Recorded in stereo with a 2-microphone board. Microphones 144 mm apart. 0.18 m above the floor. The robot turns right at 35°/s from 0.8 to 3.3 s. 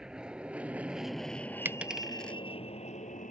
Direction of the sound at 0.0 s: 5° right (ahead or behind).